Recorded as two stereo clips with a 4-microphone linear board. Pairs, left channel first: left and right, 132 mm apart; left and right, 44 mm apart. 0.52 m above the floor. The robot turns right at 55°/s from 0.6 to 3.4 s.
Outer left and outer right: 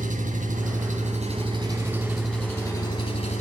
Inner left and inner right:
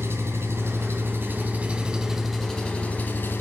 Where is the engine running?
85° right, 3 m; by 3.4 s 65° left, 3 m.